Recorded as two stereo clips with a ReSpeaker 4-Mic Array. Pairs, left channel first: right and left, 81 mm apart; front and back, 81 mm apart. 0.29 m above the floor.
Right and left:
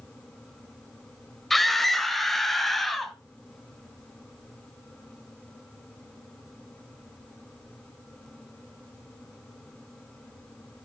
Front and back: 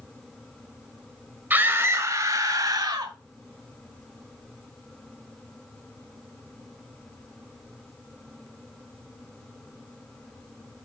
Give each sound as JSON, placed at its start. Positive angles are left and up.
{"t": 1.5, "sound": "a scream", "azimuth_deg": -175, "distance_m": 1.1}